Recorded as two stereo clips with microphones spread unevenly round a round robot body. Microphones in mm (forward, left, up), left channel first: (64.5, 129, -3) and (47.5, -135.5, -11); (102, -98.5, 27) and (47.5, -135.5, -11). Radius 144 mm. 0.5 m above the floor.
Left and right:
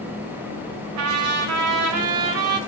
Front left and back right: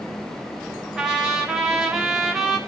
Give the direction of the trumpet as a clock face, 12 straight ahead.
3 o'clock.